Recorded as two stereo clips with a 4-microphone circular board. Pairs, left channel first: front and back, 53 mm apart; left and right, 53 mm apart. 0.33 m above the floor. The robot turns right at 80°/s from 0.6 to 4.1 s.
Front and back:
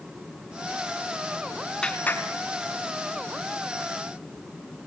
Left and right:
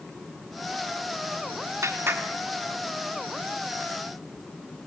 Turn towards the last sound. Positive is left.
turn(degrees=105)